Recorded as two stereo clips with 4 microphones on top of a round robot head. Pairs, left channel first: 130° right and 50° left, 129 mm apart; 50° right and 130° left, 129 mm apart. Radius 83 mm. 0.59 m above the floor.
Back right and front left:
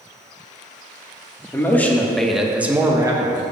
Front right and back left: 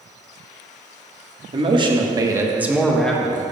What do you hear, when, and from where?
1.5 s a man speaking: 160° left, 1.4 m; by 3.4 s 15° left, 1.2 m